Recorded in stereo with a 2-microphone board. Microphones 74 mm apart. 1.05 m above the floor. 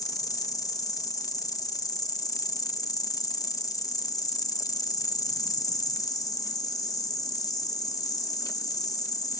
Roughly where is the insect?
Left.